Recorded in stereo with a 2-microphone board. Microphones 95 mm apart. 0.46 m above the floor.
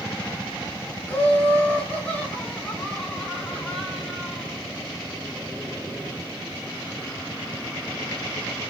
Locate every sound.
1.1 s laughter: 20° left (ahead or behind), 2.5 m; by 4.5 s 10° left (ahead or behind), 5 m